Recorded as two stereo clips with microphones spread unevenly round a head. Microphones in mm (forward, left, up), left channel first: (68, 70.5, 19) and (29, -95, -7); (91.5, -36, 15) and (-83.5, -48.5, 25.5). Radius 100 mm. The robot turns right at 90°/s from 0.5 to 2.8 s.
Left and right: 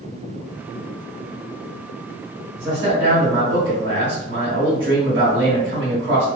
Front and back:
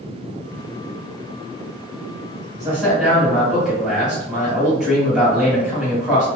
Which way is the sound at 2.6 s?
110° right.